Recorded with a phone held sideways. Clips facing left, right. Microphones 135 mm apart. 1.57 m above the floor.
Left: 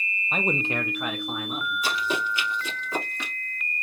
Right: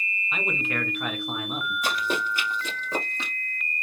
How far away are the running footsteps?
About 2.5 m.